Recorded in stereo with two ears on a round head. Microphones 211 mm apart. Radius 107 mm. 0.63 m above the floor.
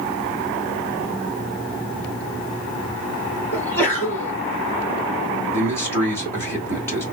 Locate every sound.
3.5 s a sneeze: 10° left (ahead or behind), 1.5 m
5.5 s a man speaking: 10° left (ahead or behind), 1.5 m